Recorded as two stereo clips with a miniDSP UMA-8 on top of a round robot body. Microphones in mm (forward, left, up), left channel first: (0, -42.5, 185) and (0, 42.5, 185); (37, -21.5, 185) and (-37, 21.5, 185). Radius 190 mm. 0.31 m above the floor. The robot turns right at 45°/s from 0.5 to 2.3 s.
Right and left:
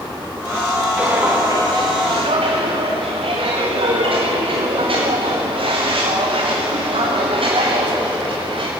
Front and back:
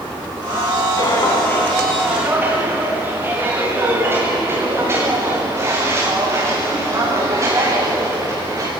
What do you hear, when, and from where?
1.0 s footsteps: 15° left, 5.5 m; by 8.7 s 100° left, 8.5 m